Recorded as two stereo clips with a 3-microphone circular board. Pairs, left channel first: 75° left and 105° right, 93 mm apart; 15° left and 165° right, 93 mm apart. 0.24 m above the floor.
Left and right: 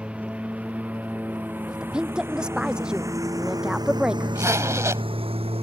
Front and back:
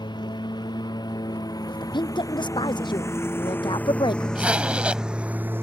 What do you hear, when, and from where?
0.0 s a lawn mower: 25° right; by 5.6 s 100° right
1.7 s a woman speaking: 25° right
4.3 s a zipper: 100° right